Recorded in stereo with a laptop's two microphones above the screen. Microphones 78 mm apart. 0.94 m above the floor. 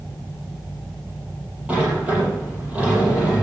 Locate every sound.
1.7 s a sliding door: 15° right (ahead or behind), 8 m